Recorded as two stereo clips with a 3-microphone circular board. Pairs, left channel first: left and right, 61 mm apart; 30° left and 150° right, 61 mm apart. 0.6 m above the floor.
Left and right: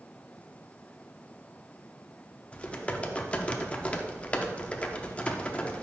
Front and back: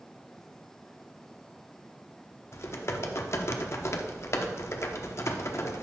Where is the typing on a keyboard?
30° left, 0.6 m.